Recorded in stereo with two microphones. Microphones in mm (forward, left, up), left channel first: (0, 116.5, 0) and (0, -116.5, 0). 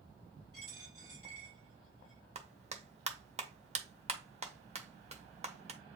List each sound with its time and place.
0.5 s a dropped coin: 75° left (ahead or behind), 4 m
2.4 s a clap: 30° right (ahead or behind), 0.7 m